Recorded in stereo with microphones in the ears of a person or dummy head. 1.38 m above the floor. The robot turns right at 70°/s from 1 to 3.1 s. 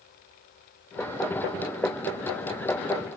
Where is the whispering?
No whispering in this recording.